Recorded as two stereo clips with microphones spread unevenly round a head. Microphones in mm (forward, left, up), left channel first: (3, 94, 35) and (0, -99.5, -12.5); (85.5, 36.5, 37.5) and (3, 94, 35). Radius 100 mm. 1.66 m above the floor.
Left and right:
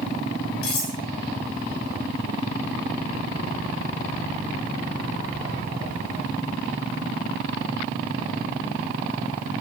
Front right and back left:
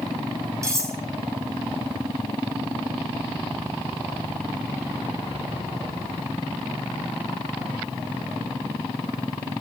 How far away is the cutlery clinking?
About 6 m.